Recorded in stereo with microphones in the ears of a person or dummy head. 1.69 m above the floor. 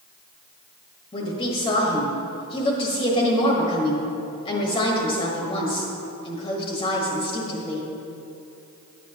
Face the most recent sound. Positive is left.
turn(degrees=30)  # may be behind; listen again after turning